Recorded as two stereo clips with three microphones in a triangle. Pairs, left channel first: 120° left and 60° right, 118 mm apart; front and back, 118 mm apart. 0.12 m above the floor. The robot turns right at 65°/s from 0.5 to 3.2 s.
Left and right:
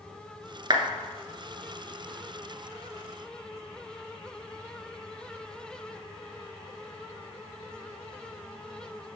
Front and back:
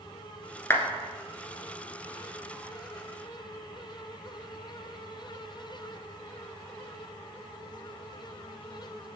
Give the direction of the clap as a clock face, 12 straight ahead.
2 o'clock.